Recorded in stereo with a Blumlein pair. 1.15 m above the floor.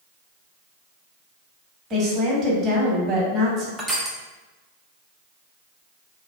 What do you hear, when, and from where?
1.9 s a woman speaking: 25° right, 0.9 m
3.8 s crushing: 5° right, 0.6 m